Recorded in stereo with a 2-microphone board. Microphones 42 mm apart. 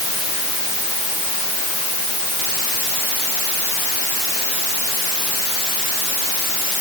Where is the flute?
No flute in this recording.